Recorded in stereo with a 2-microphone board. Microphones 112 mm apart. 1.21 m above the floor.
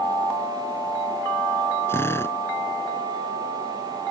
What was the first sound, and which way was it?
A drill, 20° left (ahead or behind).